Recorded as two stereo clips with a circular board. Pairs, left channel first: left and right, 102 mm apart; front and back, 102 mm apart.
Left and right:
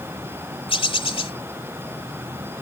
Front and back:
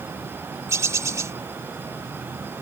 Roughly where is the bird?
Behind left.